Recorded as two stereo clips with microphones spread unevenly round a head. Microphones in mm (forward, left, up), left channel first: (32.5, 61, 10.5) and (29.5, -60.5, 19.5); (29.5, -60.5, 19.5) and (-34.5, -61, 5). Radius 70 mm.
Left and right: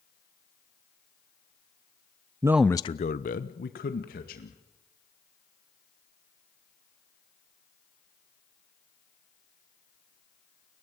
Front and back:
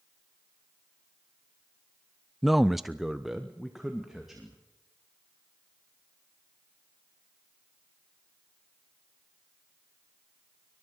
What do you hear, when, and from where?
2.4 s a man speaking: 70° right, 0.6 m; by 4.6 s 90° left, 2.5 m